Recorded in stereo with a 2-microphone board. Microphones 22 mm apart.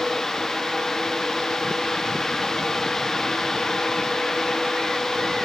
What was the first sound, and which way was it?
Only background noise.